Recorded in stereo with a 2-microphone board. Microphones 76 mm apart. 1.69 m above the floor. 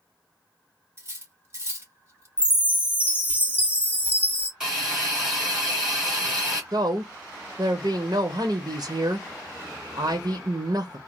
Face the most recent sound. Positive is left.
turn(degrees=-60)  # may be behind; listen again after turning